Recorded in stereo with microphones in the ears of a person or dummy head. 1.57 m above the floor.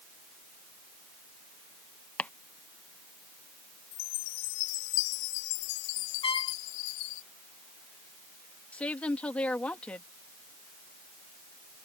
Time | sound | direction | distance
2.2 | chopping | 5° left (ahead or behind) | ?
3.9 | a chime | 80° left | ?
6.2 | a trumpet | 25° left (ahead or behind) | ?
8.7 | a woman speaking | 10° left (ahead or behind) | ?